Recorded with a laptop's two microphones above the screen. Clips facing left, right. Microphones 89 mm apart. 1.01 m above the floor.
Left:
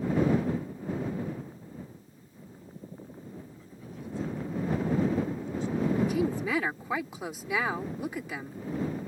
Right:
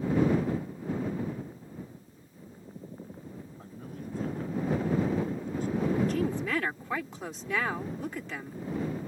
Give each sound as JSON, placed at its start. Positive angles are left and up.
{"t": 3.6, "sound": "a man speaking", "side_deg": -50}
{"t": 6.0, "sound": "a woman speaking", "side_deg": 10}